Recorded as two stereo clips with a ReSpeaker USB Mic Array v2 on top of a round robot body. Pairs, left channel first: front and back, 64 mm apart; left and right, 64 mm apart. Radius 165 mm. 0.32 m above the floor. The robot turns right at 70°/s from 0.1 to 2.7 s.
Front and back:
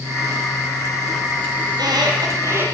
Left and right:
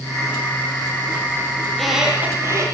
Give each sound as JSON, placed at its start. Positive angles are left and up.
{"t": 1.7, "sound": "a squeak", "azimuth_deg": 165, "distance_m": 8.5}